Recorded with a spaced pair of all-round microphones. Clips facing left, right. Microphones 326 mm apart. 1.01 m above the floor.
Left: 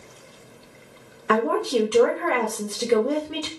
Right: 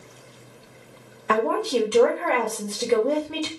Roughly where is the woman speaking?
Centre.